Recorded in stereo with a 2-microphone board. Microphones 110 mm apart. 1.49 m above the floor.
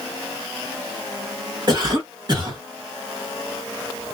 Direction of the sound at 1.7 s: 40° right (ahead or behind).